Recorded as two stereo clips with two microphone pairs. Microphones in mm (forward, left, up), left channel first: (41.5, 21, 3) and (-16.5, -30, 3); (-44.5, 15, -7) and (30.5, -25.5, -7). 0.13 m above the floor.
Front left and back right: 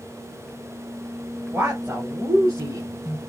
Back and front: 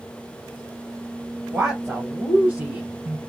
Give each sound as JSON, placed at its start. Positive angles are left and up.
{"t": 1.5, "sound": "a woman speaking", "azimuth_deg": -105, "distance_m": 2.0}